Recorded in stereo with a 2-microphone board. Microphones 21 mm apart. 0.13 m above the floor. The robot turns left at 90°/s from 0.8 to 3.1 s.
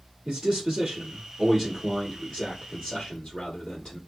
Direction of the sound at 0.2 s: 75° right.